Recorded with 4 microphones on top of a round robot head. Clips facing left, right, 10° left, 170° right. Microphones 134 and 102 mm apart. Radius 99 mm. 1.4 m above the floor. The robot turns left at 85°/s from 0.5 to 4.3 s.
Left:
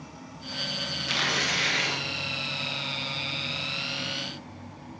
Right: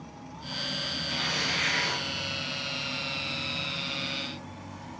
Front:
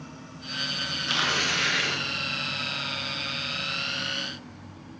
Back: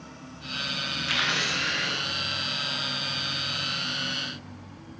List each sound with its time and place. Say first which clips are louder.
1.1 s tearing paper: left 4 dB, front 2 dB; 80° left, 1.2 m; by 2.0 s straight ahead, 1.2 m